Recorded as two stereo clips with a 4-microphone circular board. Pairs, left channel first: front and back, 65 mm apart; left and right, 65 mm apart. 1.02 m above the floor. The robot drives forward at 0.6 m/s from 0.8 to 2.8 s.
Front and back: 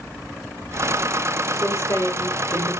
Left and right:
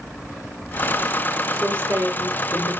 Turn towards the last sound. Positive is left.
turn(degrees=-75)